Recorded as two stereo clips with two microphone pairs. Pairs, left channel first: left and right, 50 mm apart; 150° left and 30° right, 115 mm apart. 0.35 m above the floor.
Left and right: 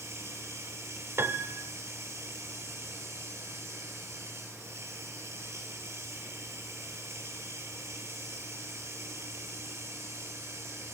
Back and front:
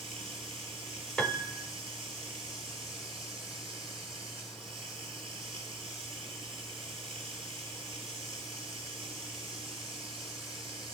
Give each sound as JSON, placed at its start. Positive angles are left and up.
{"t": 0.0, "sound": "running water", "azimuth_deg": -70, "distance_m": 6.5}
{"t": 1.2, "sound": "a piano", "azimuth_deg": -125, "distance_m": 0.7}